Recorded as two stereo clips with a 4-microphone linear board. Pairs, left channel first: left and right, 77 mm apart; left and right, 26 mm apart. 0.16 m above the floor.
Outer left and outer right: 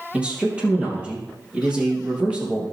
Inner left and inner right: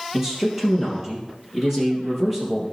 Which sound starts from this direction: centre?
A man speaking, at 0.1 s.